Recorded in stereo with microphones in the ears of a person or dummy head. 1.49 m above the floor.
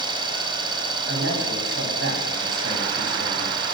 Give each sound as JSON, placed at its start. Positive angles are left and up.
{"t": 0.0, "sound": "an engine running", "side_deg": -30, "distance_m": 3.5}
{"t": 1.1, "sound": "a man speaking", "side_deg": -60, "distance_m": 9.0}